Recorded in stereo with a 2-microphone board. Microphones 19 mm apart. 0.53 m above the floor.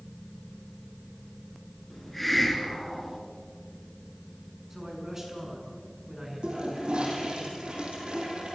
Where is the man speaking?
25° right (ahead or behind), 7 m.